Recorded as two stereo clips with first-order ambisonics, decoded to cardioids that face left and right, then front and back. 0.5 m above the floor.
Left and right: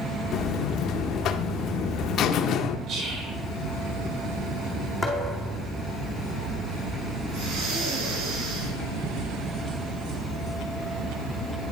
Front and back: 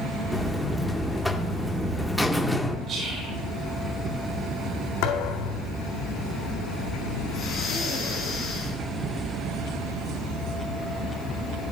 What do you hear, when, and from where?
0.3 s a buzzer: 85° left, 0.5 m
2.9 s whispering: 130° right, 1.4 m
5.0 s a thud: straight ahead, 2 m
7.3 s breathing: 60° right, 4 m